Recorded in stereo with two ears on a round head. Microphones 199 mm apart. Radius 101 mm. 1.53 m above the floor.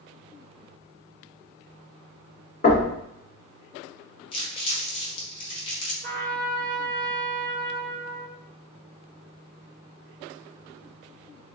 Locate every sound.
2.6 s knocking: 30° left (ahead or behind), 0.8 m
4.3 s crumpling: 25° left (ahead or behind), 0.8 m
6.0 s a trumpet: 20° right (ahead or behind), 1.7 m